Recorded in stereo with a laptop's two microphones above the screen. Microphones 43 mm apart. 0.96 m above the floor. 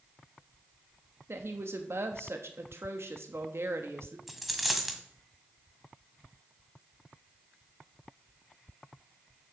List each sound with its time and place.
1.3 s a woman speaking: 70° right (ahead or behind), 1.0 m
4.3 s a dropped coin: centre (ahead or behind), 1.6 m